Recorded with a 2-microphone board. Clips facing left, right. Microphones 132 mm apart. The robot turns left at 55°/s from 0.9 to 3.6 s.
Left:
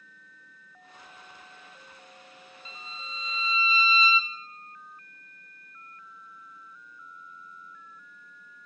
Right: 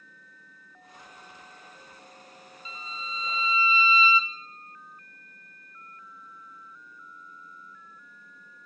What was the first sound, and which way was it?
A violin, 100° left.